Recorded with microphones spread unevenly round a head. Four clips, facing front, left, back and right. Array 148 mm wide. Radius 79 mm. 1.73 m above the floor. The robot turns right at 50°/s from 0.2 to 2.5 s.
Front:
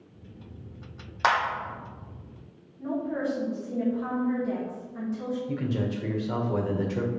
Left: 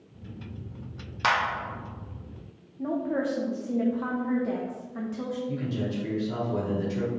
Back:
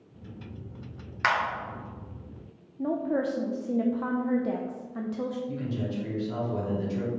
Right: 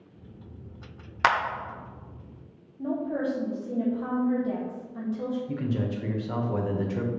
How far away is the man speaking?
About 1.4 m.